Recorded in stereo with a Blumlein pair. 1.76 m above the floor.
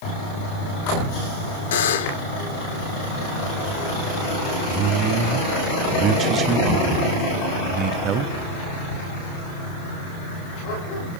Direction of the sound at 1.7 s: 60° left.